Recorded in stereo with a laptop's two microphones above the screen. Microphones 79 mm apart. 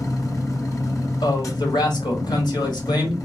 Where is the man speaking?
75° left (ahead or behind), 1.4 m.